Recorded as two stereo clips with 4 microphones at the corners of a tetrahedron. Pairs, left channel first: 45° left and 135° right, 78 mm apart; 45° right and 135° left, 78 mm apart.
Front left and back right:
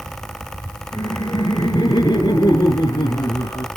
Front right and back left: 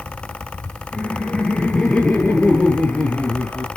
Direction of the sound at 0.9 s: 35° left.